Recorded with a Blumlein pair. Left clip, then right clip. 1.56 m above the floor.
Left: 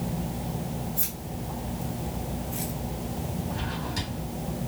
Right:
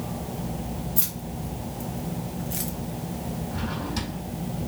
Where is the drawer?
5° right, 3 m.